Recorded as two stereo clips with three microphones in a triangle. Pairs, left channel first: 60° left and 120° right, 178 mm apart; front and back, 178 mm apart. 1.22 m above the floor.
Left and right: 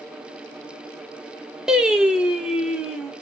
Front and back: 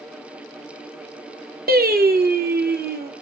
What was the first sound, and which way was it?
Singing, 155° left.